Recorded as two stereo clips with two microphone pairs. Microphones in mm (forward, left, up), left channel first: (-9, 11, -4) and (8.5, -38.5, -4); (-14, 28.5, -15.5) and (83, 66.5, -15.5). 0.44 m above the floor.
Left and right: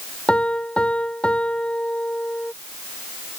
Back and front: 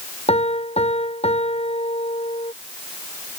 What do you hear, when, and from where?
0.3 s a piano: straight behind